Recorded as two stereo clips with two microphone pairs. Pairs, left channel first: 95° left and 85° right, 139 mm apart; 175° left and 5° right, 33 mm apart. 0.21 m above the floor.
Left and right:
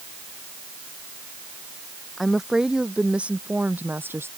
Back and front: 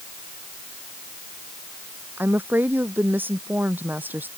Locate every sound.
2.2 s a woman speaking: 5° left; by 4.3 s 10° right